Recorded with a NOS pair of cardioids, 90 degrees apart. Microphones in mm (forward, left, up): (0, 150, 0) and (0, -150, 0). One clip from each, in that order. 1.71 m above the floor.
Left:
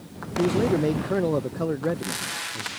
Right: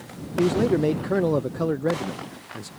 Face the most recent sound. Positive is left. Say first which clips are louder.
# right 1 dB
turn(degrees=-10)